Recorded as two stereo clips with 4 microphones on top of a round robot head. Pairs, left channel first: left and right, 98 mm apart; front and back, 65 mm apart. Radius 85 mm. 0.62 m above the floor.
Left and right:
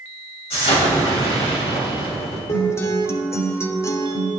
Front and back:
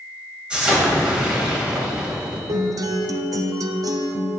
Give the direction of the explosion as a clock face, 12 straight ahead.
9 o'clock.